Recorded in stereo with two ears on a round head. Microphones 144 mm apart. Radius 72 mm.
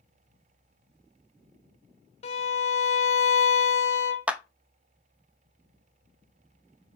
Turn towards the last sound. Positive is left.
turn(degrees=-10)  # may be behind; listen again after turning